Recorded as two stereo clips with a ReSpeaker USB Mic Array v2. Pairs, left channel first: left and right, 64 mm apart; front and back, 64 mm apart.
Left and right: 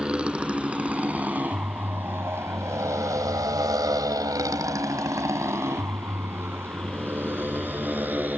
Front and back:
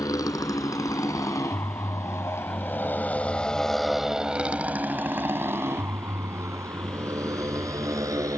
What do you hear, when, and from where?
0.0 s a motorcycle: 15° right; by 8.4 s 150° right